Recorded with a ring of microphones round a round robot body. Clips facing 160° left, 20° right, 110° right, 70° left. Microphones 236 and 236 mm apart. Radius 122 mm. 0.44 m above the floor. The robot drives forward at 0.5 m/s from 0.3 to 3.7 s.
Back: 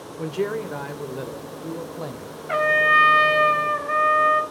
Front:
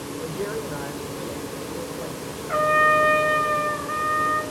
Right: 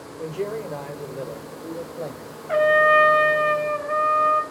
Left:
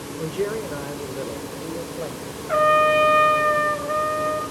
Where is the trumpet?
150° left, 2 m; by 4.4 s 160° left, 2.5 m.